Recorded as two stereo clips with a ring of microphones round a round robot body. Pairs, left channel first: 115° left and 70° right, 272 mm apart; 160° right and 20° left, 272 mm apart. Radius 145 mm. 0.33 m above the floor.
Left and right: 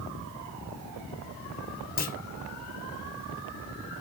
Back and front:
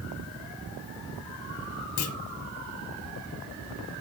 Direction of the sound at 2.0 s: 170° left.